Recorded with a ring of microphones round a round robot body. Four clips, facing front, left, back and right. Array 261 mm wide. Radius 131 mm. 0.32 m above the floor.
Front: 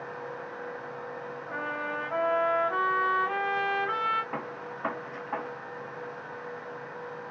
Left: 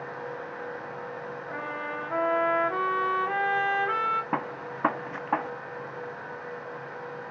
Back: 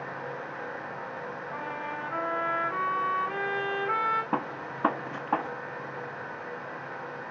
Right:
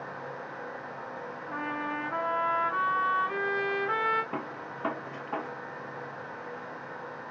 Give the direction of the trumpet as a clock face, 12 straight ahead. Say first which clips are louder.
Right 2 dB, front 4 dB; 10 o'clock.